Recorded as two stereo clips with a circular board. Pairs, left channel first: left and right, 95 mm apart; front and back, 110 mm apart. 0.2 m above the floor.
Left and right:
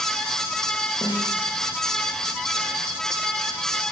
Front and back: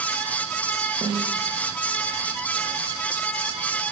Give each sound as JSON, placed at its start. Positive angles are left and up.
{"t": 1.0, "sound": "a snare drum", "azimuth_deg": 135, "distance_m": 8.0}